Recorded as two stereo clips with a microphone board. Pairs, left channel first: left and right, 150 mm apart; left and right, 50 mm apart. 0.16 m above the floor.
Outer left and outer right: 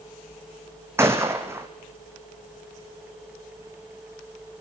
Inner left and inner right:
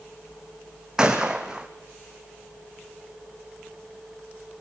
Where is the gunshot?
15° right (ahead or behind), 2 m.